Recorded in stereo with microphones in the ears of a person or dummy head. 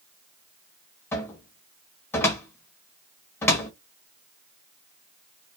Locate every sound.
1.1 s a cupboard door: 20° left (ahead or behind), 0.7 m